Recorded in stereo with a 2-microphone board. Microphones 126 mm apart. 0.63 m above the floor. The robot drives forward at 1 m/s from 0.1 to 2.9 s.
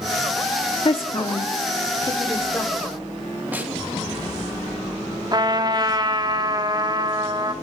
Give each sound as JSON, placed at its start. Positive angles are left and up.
{"t": 0.8, "sound": "a woman speaking", "side_deg": 45, "distance_m": 0.9}
{"t": 3.5, "sound": "a snare drum", "side_deg": -15, "distance_m": 3.5}
{"t": 5.3, "sound": "a trumpet", "side_deg": -35, "distance_m": 1.1}